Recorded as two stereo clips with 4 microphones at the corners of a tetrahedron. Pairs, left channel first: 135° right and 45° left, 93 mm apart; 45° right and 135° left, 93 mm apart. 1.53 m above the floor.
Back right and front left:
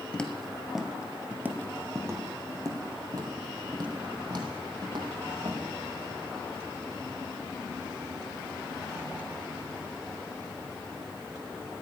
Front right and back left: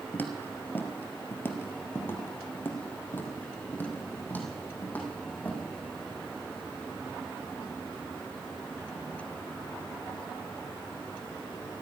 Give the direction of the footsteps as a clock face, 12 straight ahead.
2 o'clock.